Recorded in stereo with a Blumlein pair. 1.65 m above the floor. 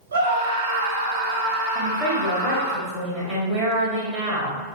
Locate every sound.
0.1 s a scream: 65° right, 1.0 m
1.8 s a woman speaking: 15° right, 1.9 m